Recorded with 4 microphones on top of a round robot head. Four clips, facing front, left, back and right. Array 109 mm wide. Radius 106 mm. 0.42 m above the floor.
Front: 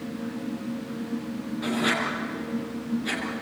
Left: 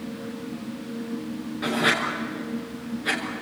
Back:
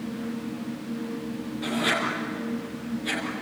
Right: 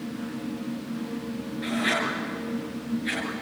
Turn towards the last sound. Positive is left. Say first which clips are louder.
# left 3 dB, even
turn(degrees=70)